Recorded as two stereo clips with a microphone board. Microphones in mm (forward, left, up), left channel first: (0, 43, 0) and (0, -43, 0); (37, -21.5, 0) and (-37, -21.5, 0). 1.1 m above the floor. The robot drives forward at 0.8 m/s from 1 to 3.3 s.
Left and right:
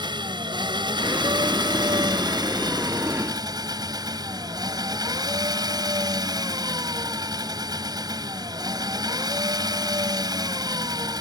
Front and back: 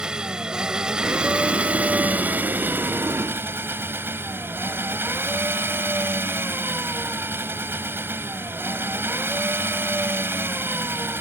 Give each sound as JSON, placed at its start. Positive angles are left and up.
{"t": 0.0, "sound": "an engine running", "azimuth_deg": -100}